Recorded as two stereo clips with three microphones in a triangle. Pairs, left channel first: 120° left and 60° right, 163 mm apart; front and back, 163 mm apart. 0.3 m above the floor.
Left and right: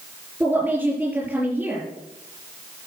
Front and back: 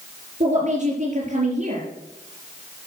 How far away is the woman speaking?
About 4.5 m.